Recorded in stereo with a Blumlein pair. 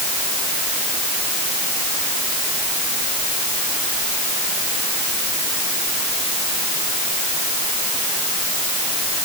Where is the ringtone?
I don't hear a ringtone.